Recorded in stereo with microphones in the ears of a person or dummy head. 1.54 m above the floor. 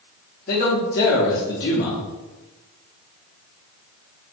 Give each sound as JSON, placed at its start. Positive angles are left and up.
{"t": 0.5, "sound": "a man speaking", "side_deg": 40, "distance_m": 0.6}